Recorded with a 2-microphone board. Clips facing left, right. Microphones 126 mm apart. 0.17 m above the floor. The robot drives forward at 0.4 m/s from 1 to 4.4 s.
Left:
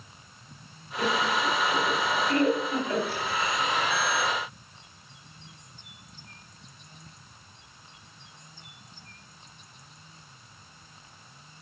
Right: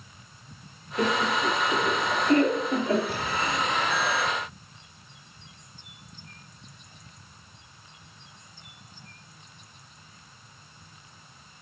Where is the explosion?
60° right (ahead or behind), 0.7 m; by 4.3 s 35° right (ahead or behind), 1.0 m.